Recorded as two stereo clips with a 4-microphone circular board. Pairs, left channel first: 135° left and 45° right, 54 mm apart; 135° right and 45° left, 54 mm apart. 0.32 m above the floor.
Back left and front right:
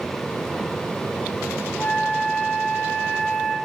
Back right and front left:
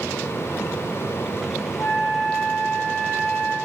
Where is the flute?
175° right, 6 m.